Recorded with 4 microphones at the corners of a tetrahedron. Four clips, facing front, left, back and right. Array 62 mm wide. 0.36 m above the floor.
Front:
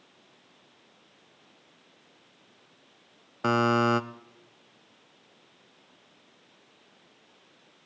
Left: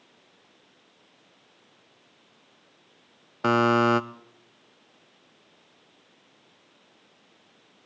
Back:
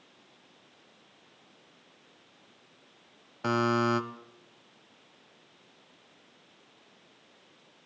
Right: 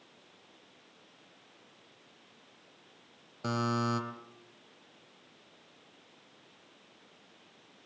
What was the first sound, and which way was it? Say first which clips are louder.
A buzzer: left 12 dB, front 3 dB; 70° left.